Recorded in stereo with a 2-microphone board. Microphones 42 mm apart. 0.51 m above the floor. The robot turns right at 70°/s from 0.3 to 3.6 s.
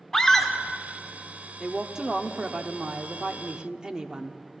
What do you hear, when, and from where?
0.1 s a scream: 15° left (ahead or behind), 1.1 m; by 0.5 s 5° left (ahead or behind), 1.1 m
1.6 s a woman speaking: 175° right, 0.8 m; by 4.4 s 35° right, 0.8 m